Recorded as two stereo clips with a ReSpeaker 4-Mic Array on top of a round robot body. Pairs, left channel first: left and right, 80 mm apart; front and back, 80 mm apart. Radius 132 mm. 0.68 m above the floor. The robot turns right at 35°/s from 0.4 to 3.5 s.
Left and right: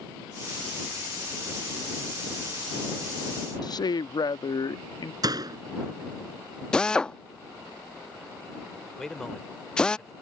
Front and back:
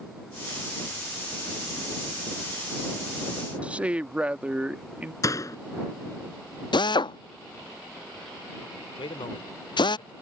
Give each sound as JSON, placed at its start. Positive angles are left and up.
{"t": 3.6, "sound": "a man speaking", "azimuth_deg": 105}
{"t": 5.2, "sound": "a door slam", "azimuth_deg": -50}
{"t": 6.7, "sound": "a drill", "azimuth_deg": 10}
{"t": 9.0, "sound": "a man speaking", "azimuth_deg": 10}